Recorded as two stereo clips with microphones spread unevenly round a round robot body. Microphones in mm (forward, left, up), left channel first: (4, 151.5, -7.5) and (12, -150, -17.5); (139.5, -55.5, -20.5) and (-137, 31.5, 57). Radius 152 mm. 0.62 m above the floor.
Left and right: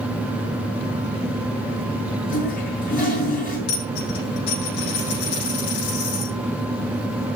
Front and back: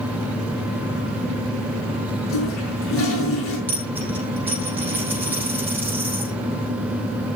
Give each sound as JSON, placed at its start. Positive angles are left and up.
{"t": 2.3, "sound": "a toilet flushing", "azimuth_deg": 30, "distance_m": 5.5}
{"t": 3.7, "sound": "a dropped coin", "azimuth_deg": 80, "distance_m": 6.0}